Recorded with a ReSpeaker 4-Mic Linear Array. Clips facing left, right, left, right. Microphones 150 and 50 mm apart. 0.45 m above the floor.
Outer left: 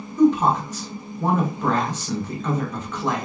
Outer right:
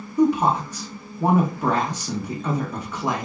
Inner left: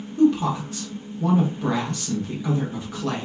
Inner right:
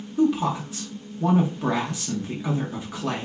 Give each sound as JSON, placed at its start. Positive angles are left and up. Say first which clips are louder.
{"t": 0.2, "sound": "a woman speaking", "louder": "outer left 2 dB, inner left 3 dB", "side_deg": -10, "distance_m": 0.8}